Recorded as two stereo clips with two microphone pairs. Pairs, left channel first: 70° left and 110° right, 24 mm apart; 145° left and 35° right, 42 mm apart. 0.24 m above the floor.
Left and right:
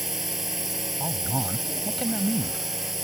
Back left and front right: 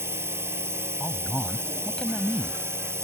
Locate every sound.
0.0 s a drone: 30° right
1.0 s a man speaking: 120° left